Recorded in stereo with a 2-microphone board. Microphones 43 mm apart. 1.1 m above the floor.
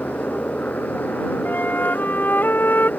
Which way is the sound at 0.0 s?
40° left (ahead or behind).